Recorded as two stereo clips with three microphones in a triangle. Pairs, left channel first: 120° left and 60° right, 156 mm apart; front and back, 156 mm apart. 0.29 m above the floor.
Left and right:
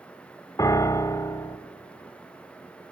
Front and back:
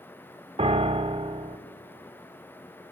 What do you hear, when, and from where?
0.6 s a piano: 175° left, 0.6 m